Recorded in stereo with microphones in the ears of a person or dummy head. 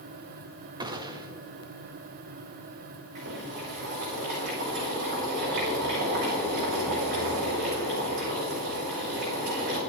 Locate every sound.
0.8 s a gunshot: 20° right (ahead or behind), 0.8 m
3.1 s boiling: 50° right (ahead or behind), 4.5 m